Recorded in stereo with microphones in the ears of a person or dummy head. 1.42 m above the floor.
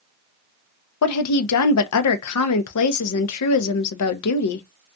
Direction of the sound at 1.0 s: 85° left.